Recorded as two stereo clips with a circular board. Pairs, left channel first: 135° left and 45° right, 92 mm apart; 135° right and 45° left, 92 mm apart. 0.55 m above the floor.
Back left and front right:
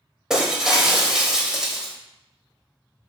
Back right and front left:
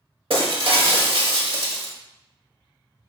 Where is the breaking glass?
40° left, 0.8 m.